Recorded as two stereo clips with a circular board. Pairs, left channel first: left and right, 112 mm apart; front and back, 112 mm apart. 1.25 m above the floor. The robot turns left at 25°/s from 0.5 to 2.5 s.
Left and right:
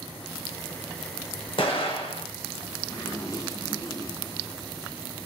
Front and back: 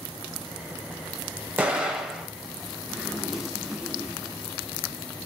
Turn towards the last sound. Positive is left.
turn(degrees=100)